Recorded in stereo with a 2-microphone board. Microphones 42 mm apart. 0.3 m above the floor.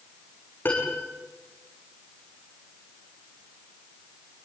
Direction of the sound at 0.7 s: 55° left (ahead or behind).